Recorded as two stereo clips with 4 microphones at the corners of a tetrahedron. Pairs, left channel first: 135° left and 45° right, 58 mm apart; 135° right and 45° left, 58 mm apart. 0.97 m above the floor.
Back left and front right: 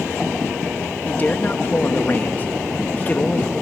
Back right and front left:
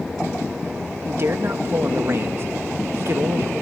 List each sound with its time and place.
1.1 s a man speaking: 80° left, 1.2 m